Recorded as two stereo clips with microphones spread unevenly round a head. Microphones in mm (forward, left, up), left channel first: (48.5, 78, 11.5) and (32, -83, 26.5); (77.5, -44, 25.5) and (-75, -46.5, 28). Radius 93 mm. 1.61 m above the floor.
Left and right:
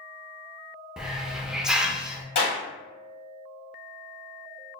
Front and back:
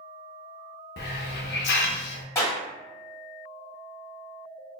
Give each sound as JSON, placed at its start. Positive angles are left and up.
{"t": 1.0, "sound": "a hiss", "azimuth_deg": -10, "distance_m": 0.5}
{"t": 2.4, "sound": "a clap", "azimuth_deg": 75, "distance_m": 1.8}